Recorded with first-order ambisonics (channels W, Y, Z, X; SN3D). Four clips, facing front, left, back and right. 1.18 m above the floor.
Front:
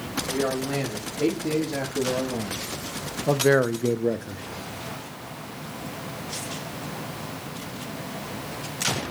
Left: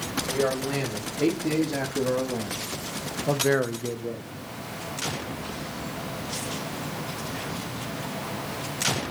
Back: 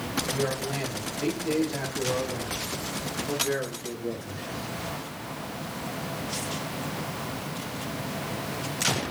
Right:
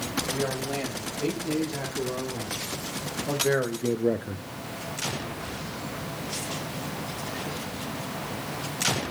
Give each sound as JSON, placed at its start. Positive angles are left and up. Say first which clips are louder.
{"t": 0.3, "sound": "a man speaking", "louder": "left 7 dB, front 6 dB", "azimuth_deg": 55, "distance_m": 4.5}